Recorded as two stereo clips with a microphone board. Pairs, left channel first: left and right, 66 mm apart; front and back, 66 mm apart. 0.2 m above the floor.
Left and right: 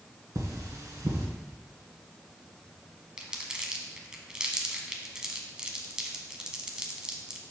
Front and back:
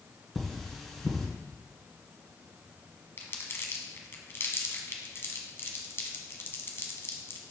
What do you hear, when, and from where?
0.3 s cutlery clinking: 85° right, 1.6 m
3.2 s crumpling: 20° right, 0.9 m